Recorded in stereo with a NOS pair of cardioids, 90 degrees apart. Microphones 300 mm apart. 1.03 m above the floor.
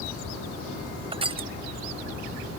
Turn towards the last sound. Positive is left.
turn(degrees=-20)